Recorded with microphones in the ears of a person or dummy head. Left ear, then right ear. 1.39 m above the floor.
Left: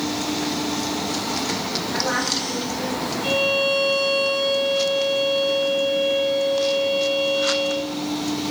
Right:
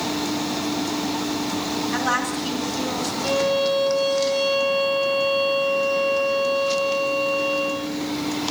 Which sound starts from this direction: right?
A woman speaking, at 1.9 s.